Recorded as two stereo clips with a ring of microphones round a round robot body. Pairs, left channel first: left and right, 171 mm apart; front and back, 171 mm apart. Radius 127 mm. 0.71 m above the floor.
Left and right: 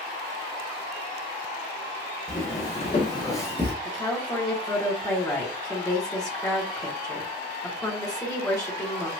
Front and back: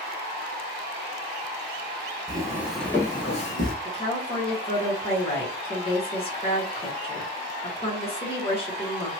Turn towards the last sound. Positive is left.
turn(degrees=30)